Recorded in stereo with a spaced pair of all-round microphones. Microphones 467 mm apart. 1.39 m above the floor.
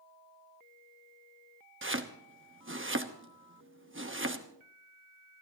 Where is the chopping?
25° right (ahead or behind), 1.1 m.